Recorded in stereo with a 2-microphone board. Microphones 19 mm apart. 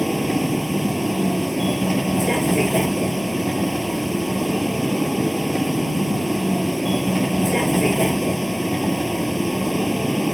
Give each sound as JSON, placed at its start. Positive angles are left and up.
{"t": 0.0, "sound": "a vehicle", "side_deg": -5}